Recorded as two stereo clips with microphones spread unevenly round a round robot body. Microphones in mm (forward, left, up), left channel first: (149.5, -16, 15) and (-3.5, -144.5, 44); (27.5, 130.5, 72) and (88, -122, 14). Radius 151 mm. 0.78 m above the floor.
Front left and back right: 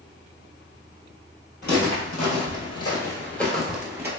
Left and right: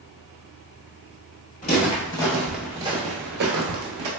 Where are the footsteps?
75° left, 1.0 m; by 4.1 s 75° right, 1.0 m.